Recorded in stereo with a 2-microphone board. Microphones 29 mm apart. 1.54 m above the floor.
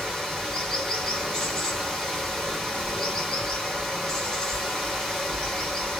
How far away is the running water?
About 1.7 m.